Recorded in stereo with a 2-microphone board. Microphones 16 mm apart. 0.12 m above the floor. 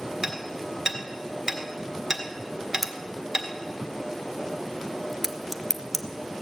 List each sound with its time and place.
0.2 s hammering: 35° right (ahead or behind), 1.5 m
2.8 s a crack: centre (ahead or behind), 0.8 m